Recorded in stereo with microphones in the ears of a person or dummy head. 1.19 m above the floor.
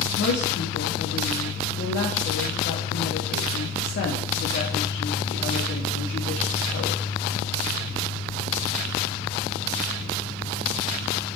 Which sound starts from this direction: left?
A woman speaking, at 0.2 s.